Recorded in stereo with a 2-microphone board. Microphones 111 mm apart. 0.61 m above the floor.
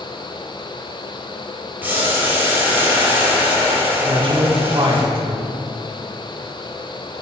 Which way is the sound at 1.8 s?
15° right (ahead or behind).